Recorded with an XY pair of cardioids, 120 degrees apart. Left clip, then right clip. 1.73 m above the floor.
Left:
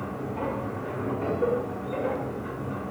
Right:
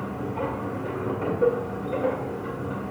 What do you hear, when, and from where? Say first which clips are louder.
0.0 s a machine running: right 2 dB; 20° right, 1.7 m